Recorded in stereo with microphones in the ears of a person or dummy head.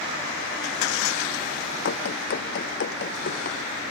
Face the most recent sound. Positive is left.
turn(degrees=50)  # may be behind; listen again after turning